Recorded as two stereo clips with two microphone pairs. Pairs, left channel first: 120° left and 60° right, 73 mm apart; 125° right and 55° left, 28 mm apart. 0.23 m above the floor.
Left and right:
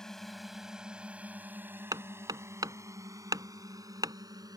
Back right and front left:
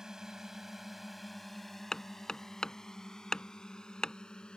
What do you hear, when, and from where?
0.0 s a drone: 45° left; by 4.6 s 70° right
1.9 s hammering: 65° right